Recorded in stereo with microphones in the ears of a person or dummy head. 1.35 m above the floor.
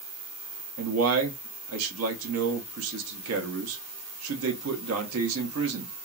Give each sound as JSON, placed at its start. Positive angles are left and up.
{"t": 0.8, "sound": "a man speaking", "side_deg": -75, "distance_m": 0.7}